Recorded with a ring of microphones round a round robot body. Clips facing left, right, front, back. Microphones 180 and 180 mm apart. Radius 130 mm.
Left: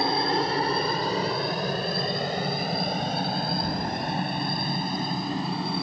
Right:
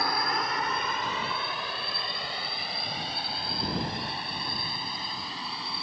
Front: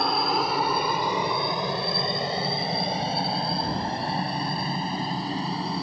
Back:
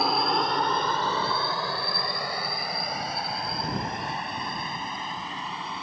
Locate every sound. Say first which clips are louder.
0.0 s a helicopter: left 6 dB, even; 95° left; by 5.8 s 50° left